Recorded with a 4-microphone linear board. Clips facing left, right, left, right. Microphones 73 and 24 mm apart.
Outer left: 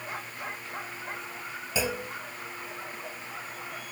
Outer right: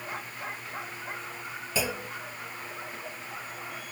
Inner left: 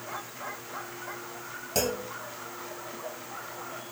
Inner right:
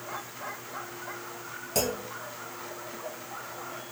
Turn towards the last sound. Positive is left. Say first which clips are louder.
# outer left 1 dB, inner left 1 dB
turn(degrees=5)  # may be behind; listen again after turning